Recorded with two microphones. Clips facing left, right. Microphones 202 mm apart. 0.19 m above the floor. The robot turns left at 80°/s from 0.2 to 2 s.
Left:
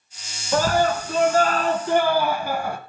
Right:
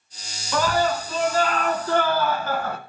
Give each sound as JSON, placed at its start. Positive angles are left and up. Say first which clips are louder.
{"t": 0.5, "sound": "a scream", "louder": "left 2 dB", "azimuth_deg": 135, "distance_m": 1.9}